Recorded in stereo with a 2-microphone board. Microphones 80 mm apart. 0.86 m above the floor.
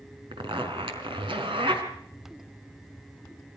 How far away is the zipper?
About 4 m.